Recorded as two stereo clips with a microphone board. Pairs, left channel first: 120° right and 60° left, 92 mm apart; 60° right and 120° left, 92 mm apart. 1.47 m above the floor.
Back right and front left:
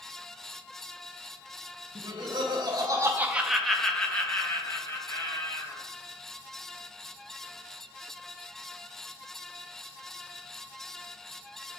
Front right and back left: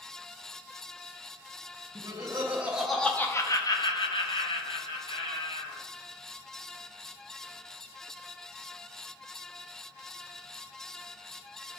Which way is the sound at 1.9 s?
75° left.